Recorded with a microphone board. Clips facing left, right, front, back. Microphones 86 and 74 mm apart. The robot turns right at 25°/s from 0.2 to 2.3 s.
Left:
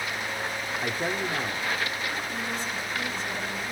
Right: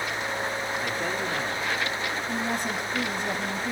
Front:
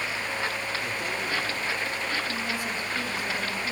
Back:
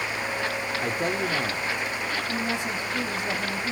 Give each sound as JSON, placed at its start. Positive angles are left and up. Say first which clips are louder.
{"t": 0.8, "sound": "a man speaking", "louder": "even, back 4 dB", "azimuth_deg": 155, "distance_m": 1.6}
{"t": 2.3, "sound": "a woman speaking", "louder": "right 4 dB, back 3 dB", "azimuth_deg": -110, "distance_m": 4.0}